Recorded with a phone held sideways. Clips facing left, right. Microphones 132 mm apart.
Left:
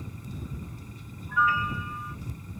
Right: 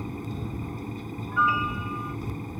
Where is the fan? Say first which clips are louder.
Right 7 dB; 65° right (ahead or behind).